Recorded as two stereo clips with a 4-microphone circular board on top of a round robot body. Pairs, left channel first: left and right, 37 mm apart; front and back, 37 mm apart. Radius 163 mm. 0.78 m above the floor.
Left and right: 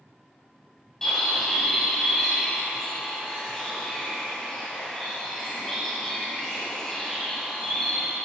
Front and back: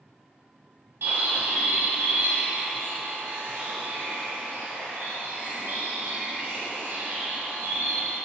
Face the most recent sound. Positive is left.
turn(degrees=165)